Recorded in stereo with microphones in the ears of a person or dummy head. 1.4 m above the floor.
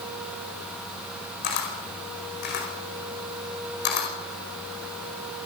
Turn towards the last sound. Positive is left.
turn(degrees=55)  # may be behind; listen again after turning